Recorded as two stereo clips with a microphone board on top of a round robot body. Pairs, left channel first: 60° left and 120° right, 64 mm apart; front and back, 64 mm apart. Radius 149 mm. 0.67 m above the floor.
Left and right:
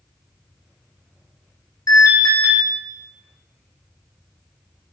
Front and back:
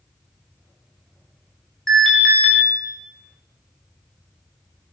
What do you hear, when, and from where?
1.9 s an alarm: 85° left, 4.5 m